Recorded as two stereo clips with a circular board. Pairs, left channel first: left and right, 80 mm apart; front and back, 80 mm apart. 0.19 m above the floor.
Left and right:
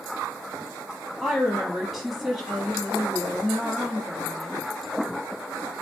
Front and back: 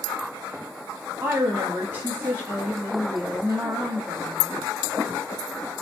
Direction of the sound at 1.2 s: Straight behind.